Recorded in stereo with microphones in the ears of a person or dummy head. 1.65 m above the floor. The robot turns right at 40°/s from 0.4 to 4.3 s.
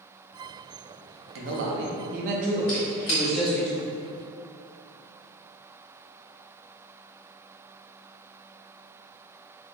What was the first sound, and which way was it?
A man speaking, 85° right.